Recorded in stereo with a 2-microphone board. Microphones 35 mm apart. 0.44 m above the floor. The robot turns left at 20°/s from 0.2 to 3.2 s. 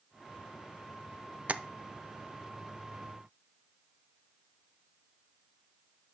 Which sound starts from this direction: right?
Tapping, at 1.5 s.